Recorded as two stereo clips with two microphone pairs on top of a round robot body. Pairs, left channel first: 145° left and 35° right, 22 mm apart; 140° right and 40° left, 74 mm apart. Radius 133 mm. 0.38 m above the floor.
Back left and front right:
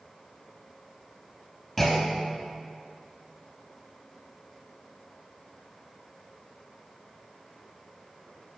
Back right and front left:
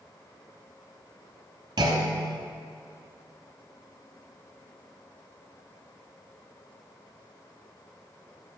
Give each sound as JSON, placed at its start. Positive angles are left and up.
{"t": 1.8, "sound": "a clunk", "azimuth_deg": 55, "distance_m": 0.9}